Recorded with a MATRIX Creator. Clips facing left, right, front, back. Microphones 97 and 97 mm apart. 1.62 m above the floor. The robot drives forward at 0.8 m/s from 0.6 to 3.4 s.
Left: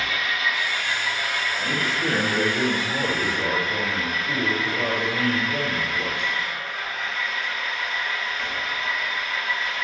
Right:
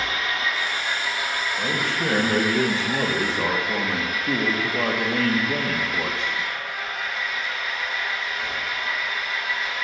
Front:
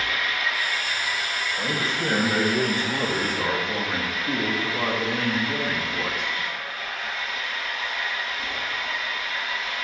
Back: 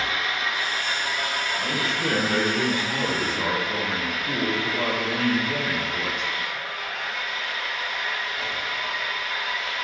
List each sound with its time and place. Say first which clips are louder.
0.0 s an engine running: even, even; 130° right, 1.2 m; by 9.8 s 170° right, 3 m
1.6 s a man speaking: right 1 dB, front 2 dB; 55° right, 2.5 m; by 6.4 s 90° right, 2 m